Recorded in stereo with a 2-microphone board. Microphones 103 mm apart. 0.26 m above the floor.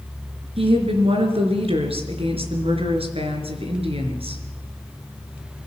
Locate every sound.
0.6 s a woman speaking: 70° right (ahead or behind), 4.5 m